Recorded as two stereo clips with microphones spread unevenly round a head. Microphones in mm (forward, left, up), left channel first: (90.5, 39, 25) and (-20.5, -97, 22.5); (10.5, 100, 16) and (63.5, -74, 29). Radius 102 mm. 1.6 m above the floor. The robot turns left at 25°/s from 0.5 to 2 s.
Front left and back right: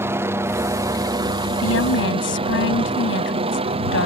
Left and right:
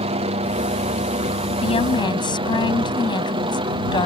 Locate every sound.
0.0 s a helicopter: 70° right; by 4.1 s 120° right
1.6 s a woman speaking: 50° left; by 4.1 s 40° left